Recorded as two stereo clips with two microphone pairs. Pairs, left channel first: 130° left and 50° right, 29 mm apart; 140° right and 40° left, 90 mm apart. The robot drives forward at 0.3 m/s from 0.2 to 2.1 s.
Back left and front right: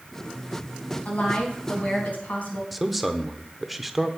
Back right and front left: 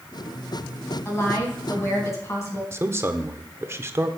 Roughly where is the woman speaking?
Behind.